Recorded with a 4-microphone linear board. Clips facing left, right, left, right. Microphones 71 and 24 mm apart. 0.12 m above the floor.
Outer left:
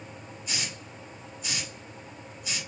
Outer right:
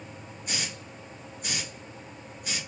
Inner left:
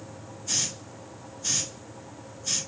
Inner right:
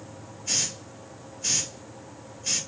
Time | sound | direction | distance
0.5 | a hiss | 50° right (ahead or behind) | 2.5 m